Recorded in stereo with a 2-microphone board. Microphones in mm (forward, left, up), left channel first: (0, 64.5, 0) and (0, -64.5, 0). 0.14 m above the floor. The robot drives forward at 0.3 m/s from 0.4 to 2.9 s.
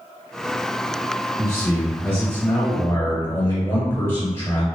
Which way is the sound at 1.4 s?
20° left (ahead or behind).